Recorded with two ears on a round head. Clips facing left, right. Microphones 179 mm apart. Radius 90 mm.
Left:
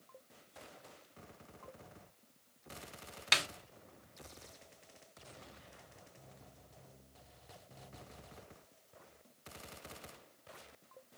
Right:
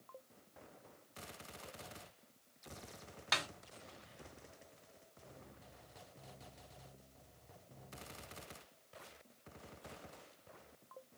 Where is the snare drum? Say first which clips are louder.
Left 2 dB; 30° left (ahead or behind), 0.5 m.